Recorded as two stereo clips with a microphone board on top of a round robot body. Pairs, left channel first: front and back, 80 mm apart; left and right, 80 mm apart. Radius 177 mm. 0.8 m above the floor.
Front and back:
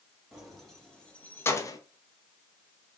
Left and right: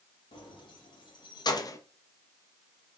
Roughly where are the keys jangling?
Left.